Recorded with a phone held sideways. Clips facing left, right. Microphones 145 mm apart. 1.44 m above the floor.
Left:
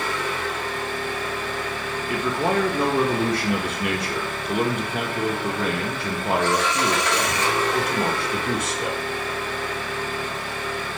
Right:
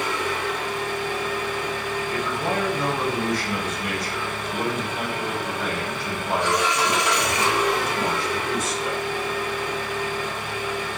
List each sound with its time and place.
0.0 s an engine running: 15° right (ahead or behind), 0.8 m
2.1 s a man speaking: 65° left (ahead or behind), 0.6 m